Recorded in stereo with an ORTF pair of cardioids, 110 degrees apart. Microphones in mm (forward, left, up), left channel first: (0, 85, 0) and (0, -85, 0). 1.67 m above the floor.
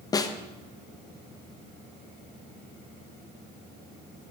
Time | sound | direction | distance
0.1 | a snare drum | 20° left | 0.6 m